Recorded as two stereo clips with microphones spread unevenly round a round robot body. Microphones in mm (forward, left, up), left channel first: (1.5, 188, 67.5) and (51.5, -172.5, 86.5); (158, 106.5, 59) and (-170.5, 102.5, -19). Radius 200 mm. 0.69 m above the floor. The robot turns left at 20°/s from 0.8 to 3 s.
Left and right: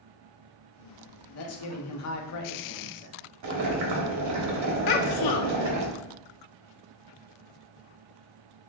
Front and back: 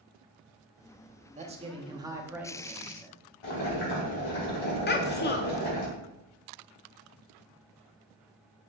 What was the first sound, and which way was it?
A man speaking, 130° left.